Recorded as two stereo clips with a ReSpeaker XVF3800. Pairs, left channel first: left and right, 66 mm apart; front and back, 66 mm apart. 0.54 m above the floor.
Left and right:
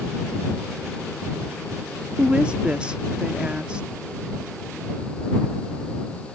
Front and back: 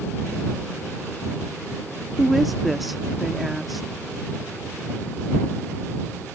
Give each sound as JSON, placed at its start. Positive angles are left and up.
{"t": 2.2, "sound": "a woman speaking", "azimuth_deg": -90}